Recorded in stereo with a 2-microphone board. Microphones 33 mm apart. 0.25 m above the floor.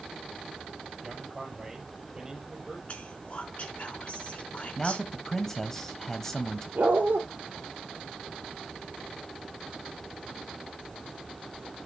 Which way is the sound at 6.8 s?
65° right (ahead or behind).